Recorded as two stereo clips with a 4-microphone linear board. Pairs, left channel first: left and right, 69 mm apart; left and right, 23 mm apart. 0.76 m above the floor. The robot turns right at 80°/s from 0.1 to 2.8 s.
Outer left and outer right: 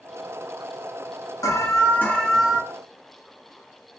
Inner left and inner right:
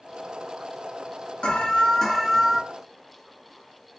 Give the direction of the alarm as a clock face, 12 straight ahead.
8 o'clock.